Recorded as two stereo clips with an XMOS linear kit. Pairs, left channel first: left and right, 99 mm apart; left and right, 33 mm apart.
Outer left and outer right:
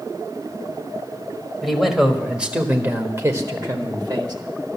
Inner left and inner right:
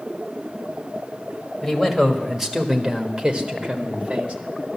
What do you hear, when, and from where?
1.6 s a man speaking: centre (ahead or behind), 1.8 m; by 4.3 s 45° right (ahead or behind), 1.5 m